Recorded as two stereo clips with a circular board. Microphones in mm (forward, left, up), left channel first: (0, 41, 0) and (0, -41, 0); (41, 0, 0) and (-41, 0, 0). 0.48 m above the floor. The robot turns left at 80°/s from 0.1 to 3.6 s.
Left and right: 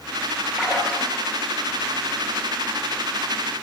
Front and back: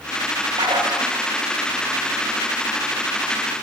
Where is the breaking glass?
I don't hear breaking glass.